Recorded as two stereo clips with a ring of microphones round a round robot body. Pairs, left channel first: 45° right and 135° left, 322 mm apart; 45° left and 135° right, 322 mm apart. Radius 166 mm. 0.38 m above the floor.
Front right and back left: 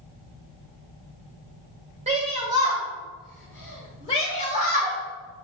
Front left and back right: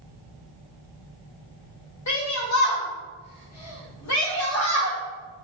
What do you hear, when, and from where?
2.1 s a shout: 70° left, 2 m; by 5.0 s 5° left, 1.9 m